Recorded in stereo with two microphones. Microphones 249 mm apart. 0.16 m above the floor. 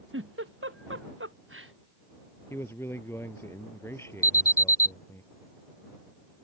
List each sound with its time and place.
0.1 s a giggle: 55° right (ahead or behind)
2.5 s a man speaking: 10° left (ahead or behind)
4.2 s an alarm: 35° left (ahead or behind)